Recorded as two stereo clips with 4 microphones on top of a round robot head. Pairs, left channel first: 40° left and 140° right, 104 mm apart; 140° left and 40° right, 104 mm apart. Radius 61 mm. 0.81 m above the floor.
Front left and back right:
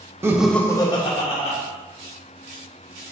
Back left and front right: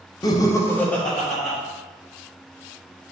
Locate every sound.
0.2 s laughter: 165° left, 0.8 m; by 1.6 s 50° left, 1.8 m